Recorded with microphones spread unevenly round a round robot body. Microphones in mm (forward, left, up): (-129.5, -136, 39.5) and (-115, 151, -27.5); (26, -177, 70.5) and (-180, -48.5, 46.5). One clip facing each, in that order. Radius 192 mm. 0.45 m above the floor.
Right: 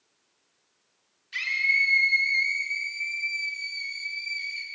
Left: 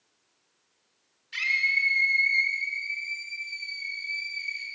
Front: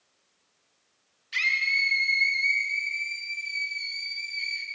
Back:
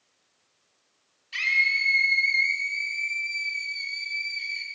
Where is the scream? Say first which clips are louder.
Right 1 dB, back 2 dB; 30° left, 1.4 m; by 4.7 s 125° right, 2 m.